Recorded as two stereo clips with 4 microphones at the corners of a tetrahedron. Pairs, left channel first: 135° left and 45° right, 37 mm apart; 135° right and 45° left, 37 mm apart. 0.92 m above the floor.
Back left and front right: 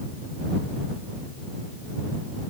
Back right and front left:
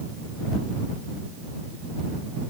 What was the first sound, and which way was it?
Only background noise.